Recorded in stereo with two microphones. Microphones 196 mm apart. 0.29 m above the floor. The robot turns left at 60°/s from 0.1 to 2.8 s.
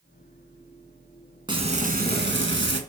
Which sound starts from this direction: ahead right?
Frying, at 1.5 s.